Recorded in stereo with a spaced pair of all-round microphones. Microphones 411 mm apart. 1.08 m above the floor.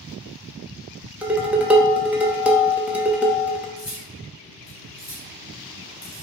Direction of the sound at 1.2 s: 5° right (ahead or behind).